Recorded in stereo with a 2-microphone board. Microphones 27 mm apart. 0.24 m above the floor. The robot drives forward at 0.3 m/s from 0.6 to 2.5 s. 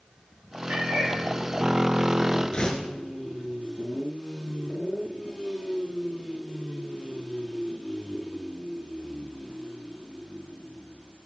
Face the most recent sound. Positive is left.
turn(degrees=30)  # may be behind; listen again after turning